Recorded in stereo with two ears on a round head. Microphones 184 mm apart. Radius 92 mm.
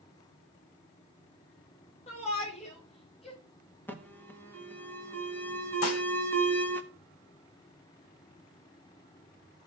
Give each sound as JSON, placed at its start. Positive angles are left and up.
{"t": 2.1, "sound": "a shout", "side_deg": 35, "distance_m": 4.0}
{"t": 3.9, "sound": "an alarm", "side_deg": 10, "distance_m": 1.1}
{"t": 5.8, "sound": "dishes clattering", "side_deg": 70, "distance_m": 1.4}